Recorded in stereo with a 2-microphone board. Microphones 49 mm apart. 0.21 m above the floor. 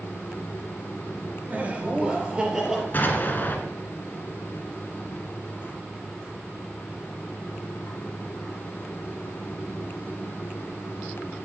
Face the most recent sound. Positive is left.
turn(degrees=40)  # may be behind; listen again after turning